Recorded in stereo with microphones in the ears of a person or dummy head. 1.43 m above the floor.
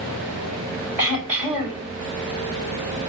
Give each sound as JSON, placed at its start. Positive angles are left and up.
{"t": 1.0, "sound": "throat clearing", "side_deg": -10, "distance_m": 5.0}